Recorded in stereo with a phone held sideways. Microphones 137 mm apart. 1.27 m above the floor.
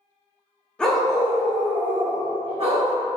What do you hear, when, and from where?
0.8 s a dog barking: 5° left (ahead or behind), 0.8 m; by 2.9 s 50° right (ahead or behind), 1.5 m